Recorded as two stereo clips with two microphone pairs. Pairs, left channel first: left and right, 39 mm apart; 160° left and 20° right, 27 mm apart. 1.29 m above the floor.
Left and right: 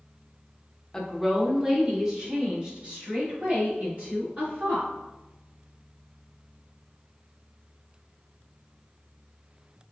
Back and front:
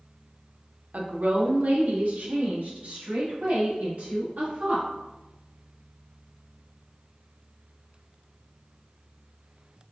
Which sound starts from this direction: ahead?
A woman speaking, at 0.9 s.